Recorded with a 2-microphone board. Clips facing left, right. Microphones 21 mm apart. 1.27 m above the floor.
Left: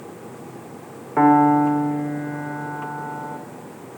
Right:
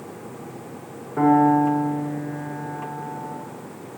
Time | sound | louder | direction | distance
1.2 | a piano | left 2 dB | 85° left | 0.6 m